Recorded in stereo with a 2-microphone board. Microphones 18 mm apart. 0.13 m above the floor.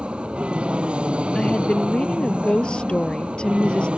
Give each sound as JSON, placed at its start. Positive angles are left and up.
{"t": 0.0, "sound": "an aircraft", "side_deg": -65}
{"t": 1.4, "sound": "a woman speaking", "side_deg": 55}